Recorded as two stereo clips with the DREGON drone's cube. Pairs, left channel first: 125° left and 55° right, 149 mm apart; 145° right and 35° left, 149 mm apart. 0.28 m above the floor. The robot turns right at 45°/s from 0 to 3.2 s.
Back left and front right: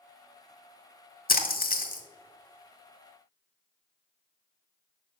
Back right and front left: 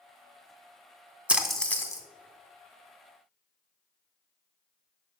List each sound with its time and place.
1.3 s a splash: 115° left, 0.6 m; by 2.0 s 145° left, 0.6 m